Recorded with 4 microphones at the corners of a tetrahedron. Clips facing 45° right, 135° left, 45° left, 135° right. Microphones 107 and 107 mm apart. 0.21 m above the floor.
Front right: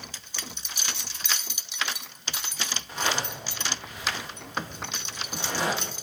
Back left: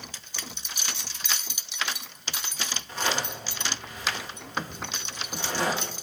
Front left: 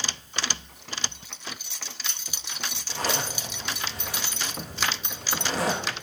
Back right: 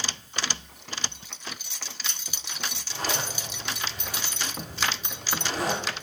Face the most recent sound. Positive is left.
turn(degrees=35)